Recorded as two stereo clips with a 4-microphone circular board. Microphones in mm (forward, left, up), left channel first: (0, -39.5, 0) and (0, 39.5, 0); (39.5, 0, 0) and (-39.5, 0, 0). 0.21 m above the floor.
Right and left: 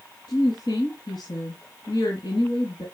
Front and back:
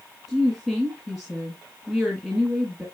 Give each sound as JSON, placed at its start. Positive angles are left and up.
{"t": 0.3, "sound": "a woman speaking", "azimuth_deg": -95, "distance_m": 2.5}